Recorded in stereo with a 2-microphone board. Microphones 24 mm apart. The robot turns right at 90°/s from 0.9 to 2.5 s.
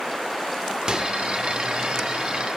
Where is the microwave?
35° right (ahead or behind), 0.6 m; by 1.1 s 30° right (ahead or behind), 0.6 m.